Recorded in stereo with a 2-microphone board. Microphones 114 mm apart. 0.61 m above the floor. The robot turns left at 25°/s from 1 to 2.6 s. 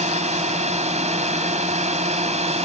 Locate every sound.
0.0 s a drone: 70° right (ahead or behind); by 2.7 s 65° right (ahead or behind)